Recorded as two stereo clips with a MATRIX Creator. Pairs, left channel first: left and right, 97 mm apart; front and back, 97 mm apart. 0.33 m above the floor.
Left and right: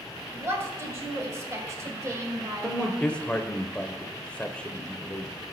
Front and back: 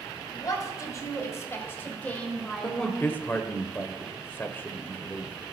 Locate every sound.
0.3 s a woman speaking: 35° right, 2 m; by 3.0 s 90° right, 1.6 m
2.6 s a man speaking: 30° left, 0.9 m